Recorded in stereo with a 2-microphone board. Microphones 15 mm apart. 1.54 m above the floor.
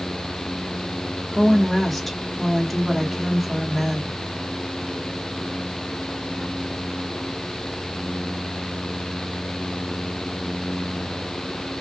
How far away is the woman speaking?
About 1.1 m.